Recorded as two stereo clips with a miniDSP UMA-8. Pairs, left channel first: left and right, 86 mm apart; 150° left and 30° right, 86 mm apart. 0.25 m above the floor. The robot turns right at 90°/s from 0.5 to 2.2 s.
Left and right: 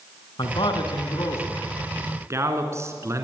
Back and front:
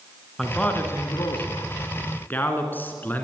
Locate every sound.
0.4 s a man speaking: 65° left, 3 m; by 3.2 s 145° right, 3 m